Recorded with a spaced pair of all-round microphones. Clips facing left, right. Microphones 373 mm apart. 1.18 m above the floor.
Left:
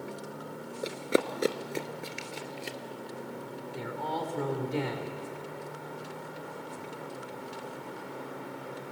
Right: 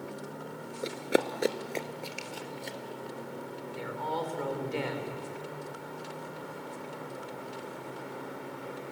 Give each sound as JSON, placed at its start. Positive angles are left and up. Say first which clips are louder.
{"t": 0.8, "sound": "running footsteps", "louder": "even", "side_deg": -5, "distance_m": 1.2}
{"t": 3.7, "sound": "a man speaking", "louder": "even", "side_deg": 45, "distance_m": 3.5}